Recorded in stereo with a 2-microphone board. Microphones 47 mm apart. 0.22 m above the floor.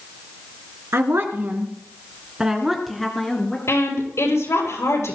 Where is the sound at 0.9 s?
60° right (ahead or behind), 2.5 m; by 3.6 s 15° left (ahead or behind), 3.5 m.